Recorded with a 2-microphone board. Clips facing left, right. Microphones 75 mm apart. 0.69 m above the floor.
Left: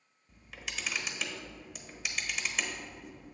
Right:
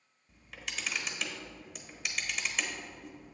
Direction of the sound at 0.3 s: Centre (ahead or behind).